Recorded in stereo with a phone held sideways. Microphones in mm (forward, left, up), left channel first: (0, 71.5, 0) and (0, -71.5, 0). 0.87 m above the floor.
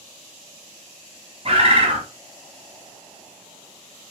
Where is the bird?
45° right (ahead or behind), 1.0 m.